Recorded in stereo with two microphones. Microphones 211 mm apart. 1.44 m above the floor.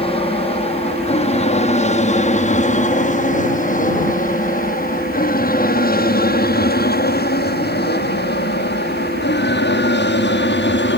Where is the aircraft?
25° left (ahead or behind); by 11.0 s 60° left (ahead or behind).